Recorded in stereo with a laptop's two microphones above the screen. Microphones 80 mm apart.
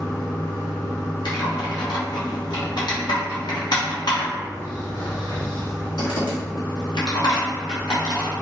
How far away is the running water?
About 1.8 m.